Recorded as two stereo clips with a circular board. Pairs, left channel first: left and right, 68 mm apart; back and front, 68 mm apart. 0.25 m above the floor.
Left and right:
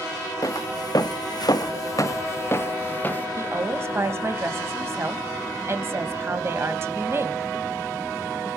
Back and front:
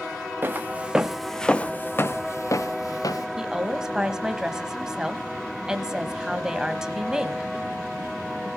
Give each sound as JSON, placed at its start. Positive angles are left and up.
{"t": 0.4, "sound": "footsteps", "azimuth_deg": 60, "distance_m": 1.1}
{"t": 3.4, "sound": "a woman speaking", "azimuth_deg": -75, "distance_m": 1.2}